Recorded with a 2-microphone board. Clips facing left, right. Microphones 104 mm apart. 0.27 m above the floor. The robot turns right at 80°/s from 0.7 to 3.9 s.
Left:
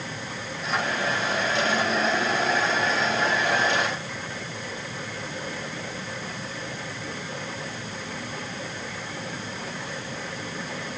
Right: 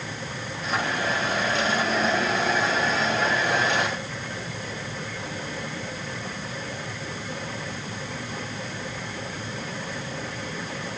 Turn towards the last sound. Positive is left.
No sound to turn to.